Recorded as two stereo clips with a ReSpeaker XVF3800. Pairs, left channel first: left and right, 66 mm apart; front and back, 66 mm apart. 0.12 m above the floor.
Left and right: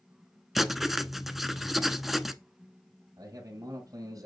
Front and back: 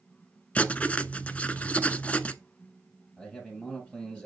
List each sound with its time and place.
0.6 s writing: 5° right, 0.6 m
3.2 s a man speaking: 70° right, 2 m